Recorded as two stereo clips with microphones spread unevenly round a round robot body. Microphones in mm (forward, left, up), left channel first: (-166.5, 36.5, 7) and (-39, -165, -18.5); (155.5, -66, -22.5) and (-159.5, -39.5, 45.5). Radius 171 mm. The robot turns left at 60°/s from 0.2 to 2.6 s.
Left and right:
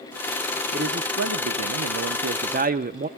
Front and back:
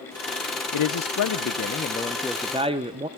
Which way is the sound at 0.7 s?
5° left.